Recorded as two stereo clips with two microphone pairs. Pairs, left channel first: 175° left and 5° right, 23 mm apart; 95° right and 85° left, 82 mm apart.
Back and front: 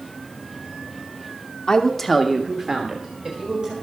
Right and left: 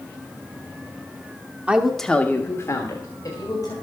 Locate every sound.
1.7 s a woman speaking: 150° left, 1.1 m; by 3.7 s 55° right, 2.5 m